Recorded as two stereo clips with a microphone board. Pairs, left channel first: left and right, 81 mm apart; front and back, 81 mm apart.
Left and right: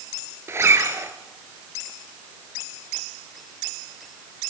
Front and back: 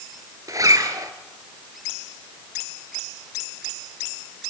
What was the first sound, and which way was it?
A zipper, 140° right.